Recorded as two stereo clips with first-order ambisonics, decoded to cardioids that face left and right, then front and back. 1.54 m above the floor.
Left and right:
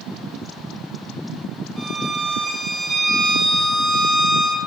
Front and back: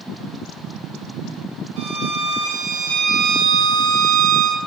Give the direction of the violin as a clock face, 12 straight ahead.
5 o'clock.